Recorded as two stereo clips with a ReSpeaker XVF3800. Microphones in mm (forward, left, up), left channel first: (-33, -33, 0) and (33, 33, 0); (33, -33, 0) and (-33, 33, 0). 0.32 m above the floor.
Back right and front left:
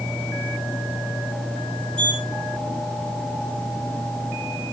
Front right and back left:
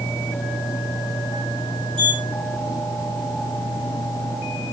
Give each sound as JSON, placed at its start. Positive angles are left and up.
{"t": 2.0, "sound": "a sliding door", "azimuth_deg": 150, "distance_m": 6.5}